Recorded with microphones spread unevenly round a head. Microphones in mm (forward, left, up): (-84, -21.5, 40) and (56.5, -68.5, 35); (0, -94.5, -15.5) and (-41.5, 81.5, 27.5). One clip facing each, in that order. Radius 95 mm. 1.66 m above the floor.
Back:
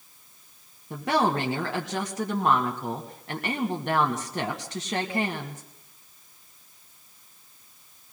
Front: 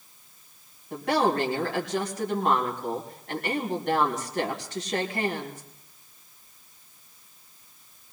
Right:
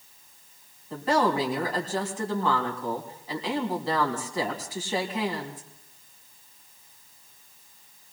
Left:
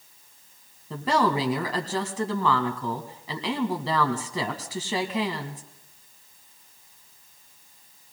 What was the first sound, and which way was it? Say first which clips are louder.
A woman speaking: even, even; 125° left.